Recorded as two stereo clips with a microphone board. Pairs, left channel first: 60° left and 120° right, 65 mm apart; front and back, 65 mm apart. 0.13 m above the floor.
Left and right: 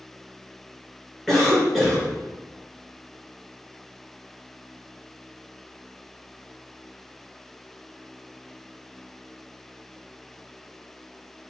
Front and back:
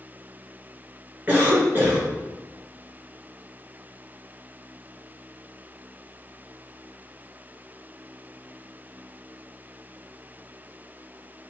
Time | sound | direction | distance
1.3 | a cough | 145° left | 1.3 m